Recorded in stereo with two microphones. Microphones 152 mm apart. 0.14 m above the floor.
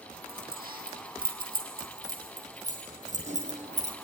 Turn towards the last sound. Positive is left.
turn(degrees=-45)  # may be behind; listen again after turning